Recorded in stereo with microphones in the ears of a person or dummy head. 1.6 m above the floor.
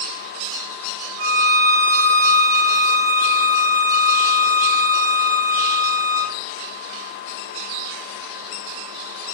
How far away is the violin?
About 0.7 m.